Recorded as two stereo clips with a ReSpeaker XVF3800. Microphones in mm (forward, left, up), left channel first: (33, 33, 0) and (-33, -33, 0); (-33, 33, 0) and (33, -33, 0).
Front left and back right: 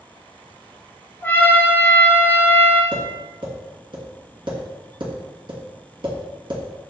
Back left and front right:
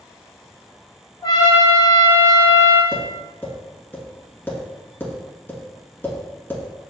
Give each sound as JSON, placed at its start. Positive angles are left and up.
{"t": 1.2, "sound": "a trumpet", "azimuth_deg": 105, "distance_m": 0.8}
{"t": 2.9, "sound": "tapping", "azimuth_deg": -160, "distance_m": 1.5}